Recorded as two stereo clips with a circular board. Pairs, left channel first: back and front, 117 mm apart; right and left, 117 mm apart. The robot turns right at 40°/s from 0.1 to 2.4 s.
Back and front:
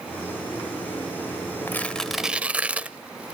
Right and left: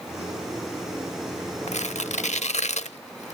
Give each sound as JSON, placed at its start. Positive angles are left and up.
{"t": 1.7, "sound": "tearing paper", "azimuth_deg": -105, "distance_m": 0.7}